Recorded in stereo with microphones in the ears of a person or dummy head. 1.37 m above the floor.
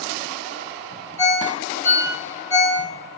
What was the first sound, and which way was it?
A ringtone, 15° left (ahead or behind).